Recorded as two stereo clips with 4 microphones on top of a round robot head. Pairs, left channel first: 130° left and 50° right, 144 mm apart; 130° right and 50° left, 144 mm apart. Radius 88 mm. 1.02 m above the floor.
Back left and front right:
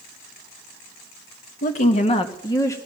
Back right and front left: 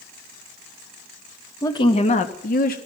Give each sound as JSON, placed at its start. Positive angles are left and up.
{"t": 1.6, "sound": "a woman speaking", "azimuth_deg": 160, "distance_m": 1.1}